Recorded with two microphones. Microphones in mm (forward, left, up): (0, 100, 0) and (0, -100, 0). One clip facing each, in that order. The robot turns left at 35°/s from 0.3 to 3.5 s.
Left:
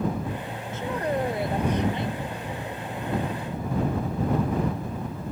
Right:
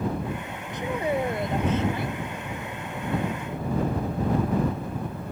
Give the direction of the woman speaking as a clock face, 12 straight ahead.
5 o'clock.